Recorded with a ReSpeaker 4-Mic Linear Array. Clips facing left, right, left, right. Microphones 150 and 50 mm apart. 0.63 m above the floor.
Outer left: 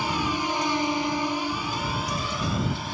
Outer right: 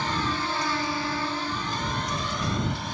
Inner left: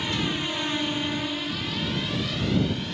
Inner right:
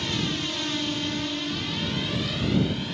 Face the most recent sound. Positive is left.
turn(degrees=5)  # may be behind; listen again after turning